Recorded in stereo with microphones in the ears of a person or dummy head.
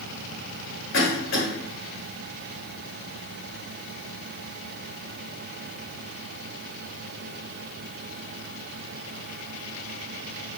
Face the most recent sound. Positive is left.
turn(degrees=65)  # may be behind; listen again after turning